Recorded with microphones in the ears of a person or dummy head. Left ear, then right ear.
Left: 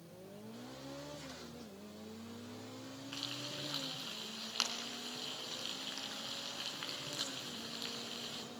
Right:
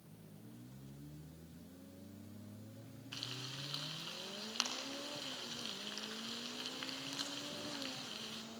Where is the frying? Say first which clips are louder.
Left 2 dB; centre (ahead or behind), 4 m.